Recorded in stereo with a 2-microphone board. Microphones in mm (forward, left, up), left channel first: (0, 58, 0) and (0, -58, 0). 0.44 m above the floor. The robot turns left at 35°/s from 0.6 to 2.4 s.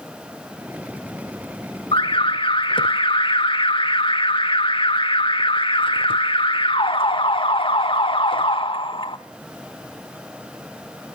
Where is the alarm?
45° left (ahead or behind), 0.7 m; by 9.2 s 50° left (ahead or behind), 0.7 m.